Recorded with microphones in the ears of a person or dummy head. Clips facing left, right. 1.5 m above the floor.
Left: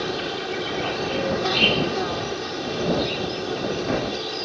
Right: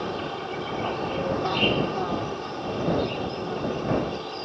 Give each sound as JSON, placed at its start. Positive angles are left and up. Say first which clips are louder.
{"t": 0.0, "sound": "an insect", "louder": "left 3 dB", "side_deg": 30}